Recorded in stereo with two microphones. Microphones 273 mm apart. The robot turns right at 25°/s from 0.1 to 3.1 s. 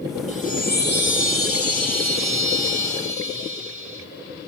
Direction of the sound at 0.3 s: 25° left.